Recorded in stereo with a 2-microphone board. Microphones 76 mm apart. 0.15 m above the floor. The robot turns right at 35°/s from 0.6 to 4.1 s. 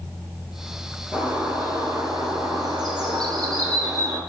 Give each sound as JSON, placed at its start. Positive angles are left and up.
{"t": 1.1, "sound": "a bird", "azimuth_deg": -160, "distance_m": 2.0}